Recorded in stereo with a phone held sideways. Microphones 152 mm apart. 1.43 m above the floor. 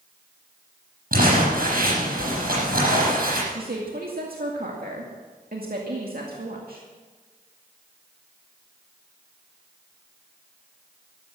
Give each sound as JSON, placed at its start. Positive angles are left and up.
{"t": 1.1, "sound": "crumpling", "side_deg": -70, "distance_m": 8.0}
{"t": 3.5, "sound": "a woman speaking", "side_deg": -80, "distance_m": 2.0}